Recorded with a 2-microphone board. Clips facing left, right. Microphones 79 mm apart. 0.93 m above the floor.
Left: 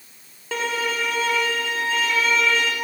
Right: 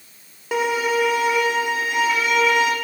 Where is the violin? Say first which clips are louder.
Right 5 dB; 15° right (ahead or behind), 3 m.